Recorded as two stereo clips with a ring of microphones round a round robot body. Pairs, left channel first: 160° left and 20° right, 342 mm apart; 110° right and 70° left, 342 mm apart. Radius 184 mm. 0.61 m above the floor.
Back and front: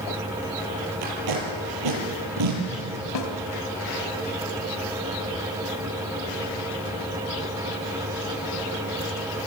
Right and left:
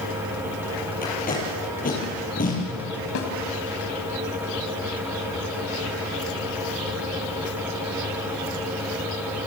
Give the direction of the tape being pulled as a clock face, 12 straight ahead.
2 o'clock.